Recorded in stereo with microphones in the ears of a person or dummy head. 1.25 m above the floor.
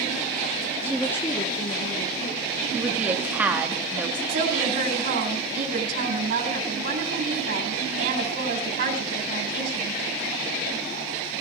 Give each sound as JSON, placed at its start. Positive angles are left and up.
{"t": 0.8, "sound": "a woman speaking", "side_deg": -20, "distance_m": 0.6}
{"t": 2.7, "sound": "a woman speaking", "side_deg": -5, "distance_m": 1.8}
{"t": 4.3, "sound": "a woman speaking", "side_deg": -70, "distance_m": 3.5}